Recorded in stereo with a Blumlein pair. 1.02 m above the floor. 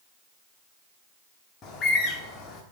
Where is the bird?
25° left, 1.4 m.